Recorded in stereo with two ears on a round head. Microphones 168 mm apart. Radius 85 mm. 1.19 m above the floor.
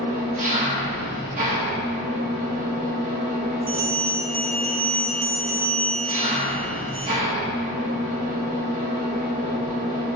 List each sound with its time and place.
0.0 s an engine running: 45° right (ahead or behind), 1.4 m
3.7 s a bell: 10° right (ahead or behind), 1.4 m